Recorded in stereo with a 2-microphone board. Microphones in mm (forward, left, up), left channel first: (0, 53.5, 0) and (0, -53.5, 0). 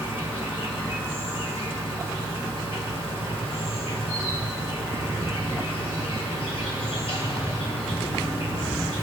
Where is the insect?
65° left (ahead or behind), 2 m.